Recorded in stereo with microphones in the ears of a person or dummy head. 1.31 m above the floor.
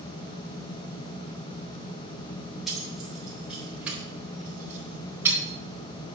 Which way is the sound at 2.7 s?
5° left (ahead or behind).